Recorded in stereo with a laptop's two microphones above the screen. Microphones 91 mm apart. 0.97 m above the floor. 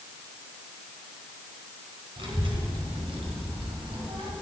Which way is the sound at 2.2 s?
80° right.